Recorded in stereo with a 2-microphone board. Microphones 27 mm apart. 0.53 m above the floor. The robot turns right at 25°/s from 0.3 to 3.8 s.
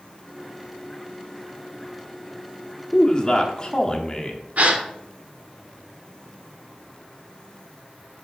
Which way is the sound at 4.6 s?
60° right (ahead or behind).